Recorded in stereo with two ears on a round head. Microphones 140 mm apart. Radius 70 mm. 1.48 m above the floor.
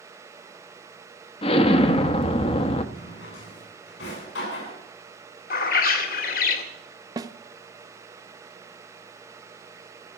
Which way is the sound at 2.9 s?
85° left.